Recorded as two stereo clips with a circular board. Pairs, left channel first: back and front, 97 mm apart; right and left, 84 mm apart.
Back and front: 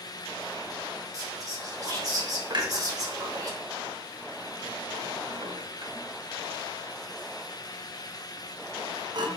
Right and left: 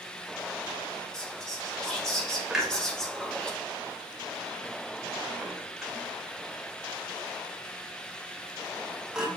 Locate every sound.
1.1 s whispering: 10° right, 0.9 m
2.5 s a clunk: 10° left, 0.8 m